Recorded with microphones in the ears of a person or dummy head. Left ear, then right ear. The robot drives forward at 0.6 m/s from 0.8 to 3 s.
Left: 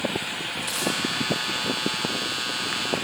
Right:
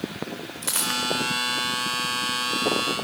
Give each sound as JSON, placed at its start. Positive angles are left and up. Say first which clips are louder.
{"t": 0.6, "sound": "a dropped coin", "louder": "right 2 dB", "side_deg": -25, "distance_m": 3.5}